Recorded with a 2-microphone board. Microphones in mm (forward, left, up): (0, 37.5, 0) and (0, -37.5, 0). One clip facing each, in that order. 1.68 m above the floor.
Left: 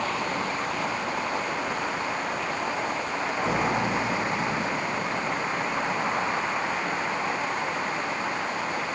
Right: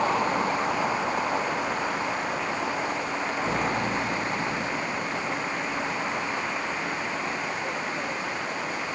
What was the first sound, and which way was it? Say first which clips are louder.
A vehicle: right 4 dB; 25° right (ahead or behind).